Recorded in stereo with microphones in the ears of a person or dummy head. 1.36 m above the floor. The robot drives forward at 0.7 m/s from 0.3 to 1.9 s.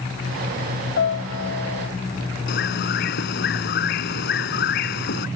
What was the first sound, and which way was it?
A piano, 70° left (ahead or behind).